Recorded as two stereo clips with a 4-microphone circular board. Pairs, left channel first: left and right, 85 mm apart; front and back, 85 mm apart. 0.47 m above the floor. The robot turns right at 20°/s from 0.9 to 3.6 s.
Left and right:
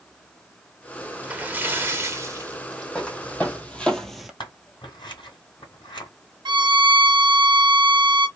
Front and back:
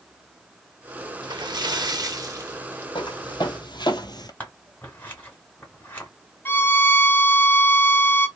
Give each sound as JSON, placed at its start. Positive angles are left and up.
{"t": 1.2, "sound": "a splash", "azimuth_deg": -160, "distance_m": 0.7}
{"t": 3.0, "sound": "footsteps", "azimuth_deg": 15, "distance_m": 1.4}
{"t": 4.4, "sound": "scissors", "azimuth_deg": 70, "distance_m": 1.8}
{"t": 6.5, "sound": "a violin", "azimuth_deg": -65, "distance_m": 0.9}